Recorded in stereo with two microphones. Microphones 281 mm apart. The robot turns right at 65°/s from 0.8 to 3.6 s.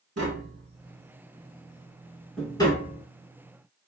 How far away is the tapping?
About 0.8 m.